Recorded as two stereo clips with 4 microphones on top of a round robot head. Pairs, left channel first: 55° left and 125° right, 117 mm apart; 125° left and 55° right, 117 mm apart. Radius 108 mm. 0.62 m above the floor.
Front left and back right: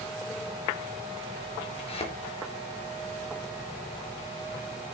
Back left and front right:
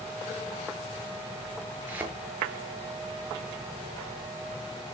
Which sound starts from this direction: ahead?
A thud, at 1.9 s.